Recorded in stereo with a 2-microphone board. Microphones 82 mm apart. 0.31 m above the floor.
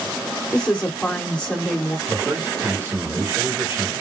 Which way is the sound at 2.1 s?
30° right (ahead or behind).